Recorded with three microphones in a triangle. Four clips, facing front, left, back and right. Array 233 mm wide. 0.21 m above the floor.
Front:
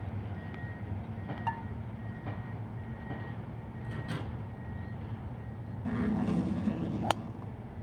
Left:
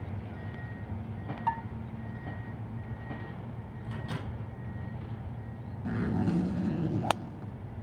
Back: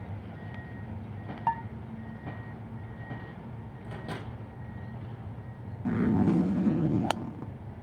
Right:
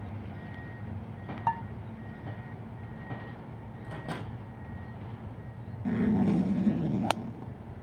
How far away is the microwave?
About 5.5 m.